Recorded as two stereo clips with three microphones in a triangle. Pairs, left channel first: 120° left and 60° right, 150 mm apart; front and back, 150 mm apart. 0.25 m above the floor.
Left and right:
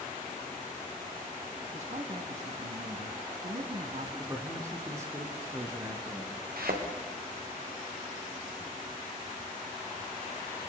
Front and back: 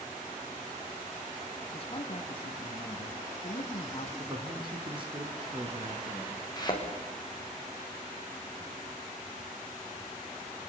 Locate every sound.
1.7 s a man speaking: 35° right, 2.5 m
4.2 s a man speaking: 130° right, 3.5 m
6.6 s a thud: 65° right, 6.5 m